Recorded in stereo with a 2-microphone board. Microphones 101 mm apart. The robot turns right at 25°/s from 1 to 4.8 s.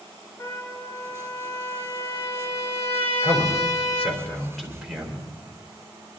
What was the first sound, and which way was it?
A trumpet, 30° left.